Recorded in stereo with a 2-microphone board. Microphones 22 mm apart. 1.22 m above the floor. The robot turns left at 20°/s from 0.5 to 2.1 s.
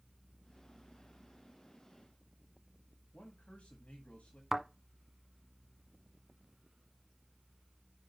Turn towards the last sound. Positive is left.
turn(degrees=-10)  # may be behind; listen again after turning